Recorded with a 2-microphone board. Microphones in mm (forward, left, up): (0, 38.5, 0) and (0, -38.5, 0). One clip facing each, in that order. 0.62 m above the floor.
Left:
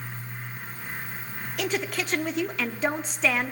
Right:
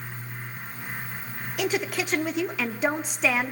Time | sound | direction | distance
1.6 | a woman speaking | 5° right (ahead or behind) | 0.9 m